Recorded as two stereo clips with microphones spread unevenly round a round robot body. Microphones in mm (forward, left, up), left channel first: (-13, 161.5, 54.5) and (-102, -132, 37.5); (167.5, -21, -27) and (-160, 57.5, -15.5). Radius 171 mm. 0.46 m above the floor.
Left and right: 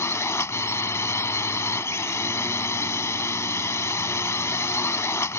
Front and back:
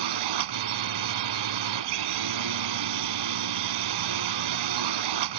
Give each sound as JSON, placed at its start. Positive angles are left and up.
{"t": 0.0, "sound": "a drone", "azimuth_deg": 155}